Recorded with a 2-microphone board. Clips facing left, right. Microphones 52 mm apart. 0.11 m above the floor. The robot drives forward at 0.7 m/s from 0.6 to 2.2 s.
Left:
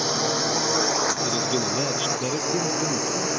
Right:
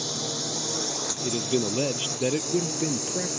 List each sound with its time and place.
0.0 s a drone: 60° left (ahead or behind); by 3.4 s 55° left (ahead or behind)
1.2 s a man speaking: 20° right (ahead or behind); by 3.3 s 25° right (ahead or behind)